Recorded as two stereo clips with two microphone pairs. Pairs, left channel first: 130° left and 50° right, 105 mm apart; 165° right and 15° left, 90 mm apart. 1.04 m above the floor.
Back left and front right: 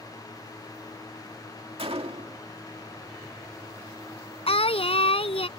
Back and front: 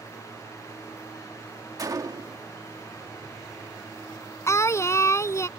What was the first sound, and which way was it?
A gunshot, 30° right.